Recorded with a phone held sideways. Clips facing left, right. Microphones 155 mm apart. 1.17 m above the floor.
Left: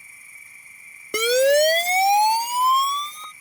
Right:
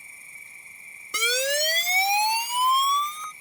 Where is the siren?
65° left (ahead or behind); by 3.3 s 30° left (ahead or behind).